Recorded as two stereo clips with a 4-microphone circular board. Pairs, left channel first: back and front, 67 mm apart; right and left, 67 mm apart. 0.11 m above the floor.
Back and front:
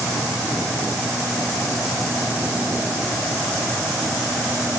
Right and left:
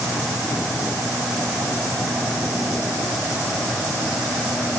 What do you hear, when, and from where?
Only background noise.